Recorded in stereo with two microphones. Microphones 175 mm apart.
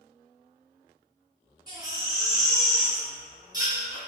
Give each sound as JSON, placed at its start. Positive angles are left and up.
{"t": 1.7, "sound": "a baby crying", "side_deg": -20, "distance_m": 1.4}